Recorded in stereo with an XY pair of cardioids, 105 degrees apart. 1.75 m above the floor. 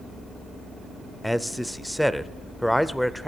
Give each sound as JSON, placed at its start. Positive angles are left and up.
{"t": 1.2, "sound": "a man speaking", "azimuth_deg": 5, "distance_m": 0.5}